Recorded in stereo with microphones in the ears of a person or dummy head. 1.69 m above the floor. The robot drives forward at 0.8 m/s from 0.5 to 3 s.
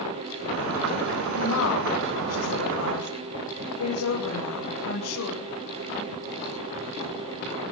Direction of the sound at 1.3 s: 85° left.